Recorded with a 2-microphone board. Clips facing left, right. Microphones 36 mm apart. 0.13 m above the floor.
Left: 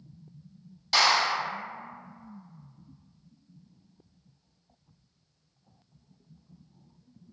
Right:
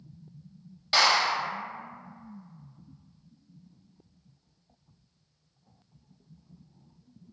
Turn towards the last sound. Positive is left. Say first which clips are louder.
# even
turn(degrees=-15)  # may be behind; listen again after turning